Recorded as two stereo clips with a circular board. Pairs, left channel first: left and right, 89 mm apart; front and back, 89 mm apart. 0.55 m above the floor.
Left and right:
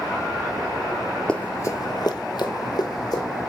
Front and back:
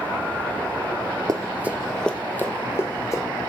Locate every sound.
1.3 s running footsteps: 165° left, 0.7 m; by 3.3 s 50° left, 2 m